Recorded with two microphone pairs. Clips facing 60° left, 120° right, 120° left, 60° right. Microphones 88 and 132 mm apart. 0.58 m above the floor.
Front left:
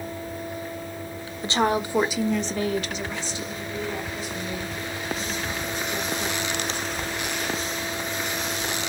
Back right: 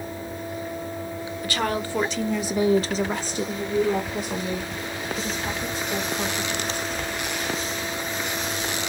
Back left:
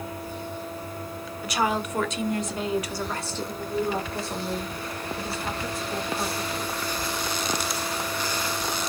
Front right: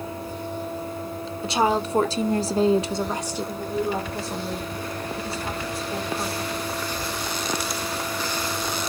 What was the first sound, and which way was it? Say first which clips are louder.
A woman speaking: front left 4 dB, front right 4 dB; straight ahead.